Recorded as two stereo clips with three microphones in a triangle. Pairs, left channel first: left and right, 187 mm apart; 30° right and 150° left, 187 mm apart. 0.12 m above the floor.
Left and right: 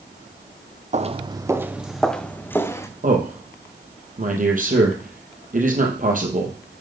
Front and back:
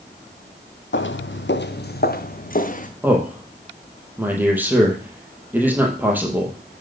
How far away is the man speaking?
About 3 m.